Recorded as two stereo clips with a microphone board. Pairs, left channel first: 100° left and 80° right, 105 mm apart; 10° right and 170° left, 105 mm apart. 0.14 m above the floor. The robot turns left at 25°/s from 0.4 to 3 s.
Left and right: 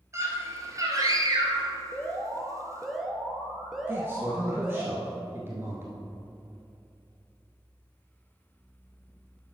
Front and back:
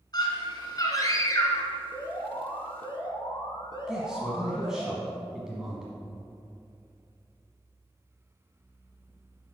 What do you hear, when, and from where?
0.1 s a scream: 30° right, 1.7 m; by 1.7 s 65° right, 1.7 m
1.9 s an alarm: 35° left, 1.2 m; by 4.9 s 5° left, 1.2 m
3.9 s a man speaking: 110° right, 1.3 m